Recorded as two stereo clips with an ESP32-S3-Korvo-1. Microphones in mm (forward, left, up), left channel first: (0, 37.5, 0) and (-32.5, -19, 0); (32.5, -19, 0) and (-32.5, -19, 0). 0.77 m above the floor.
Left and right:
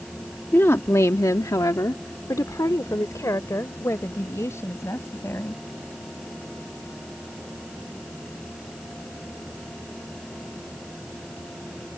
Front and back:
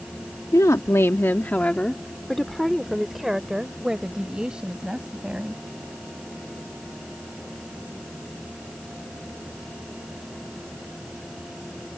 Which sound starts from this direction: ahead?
A woman speaking, at 0.5 s.